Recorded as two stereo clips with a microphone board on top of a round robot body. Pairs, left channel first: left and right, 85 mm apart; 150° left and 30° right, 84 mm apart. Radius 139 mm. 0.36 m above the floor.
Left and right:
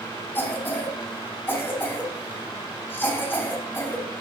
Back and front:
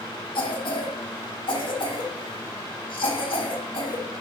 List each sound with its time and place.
0.3 s a cough: 155° left, 6 m